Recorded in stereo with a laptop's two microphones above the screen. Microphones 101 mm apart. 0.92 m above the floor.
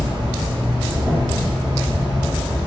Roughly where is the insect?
Right.